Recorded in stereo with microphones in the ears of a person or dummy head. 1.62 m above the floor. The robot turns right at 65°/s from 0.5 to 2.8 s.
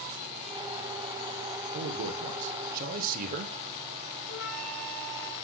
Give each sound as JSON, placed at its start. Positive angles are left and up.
{"t": 1.7, "sound": "a man speaking", "azimuth_deg": -120, "distance_m": 0.7}
{"t": 4.3, "sound": "a flute", "side_deg": 0, "distance_m": 4.5}